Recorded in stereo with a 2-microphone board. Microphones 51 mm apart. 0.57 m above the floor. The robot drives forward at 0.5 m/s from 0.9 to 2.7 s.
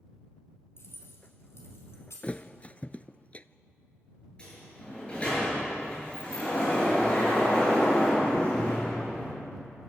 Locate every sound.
0.8 s keys jangling: 55° left (ahead or behind), 4.5 m; by 2.4 s 65° left (ahead or behind), 4 m
2.2 s a thud: 30° left (ahead or behind), 0.6 m
4.4 s a sliding door: 20° left (ahead or behind), 8.5 m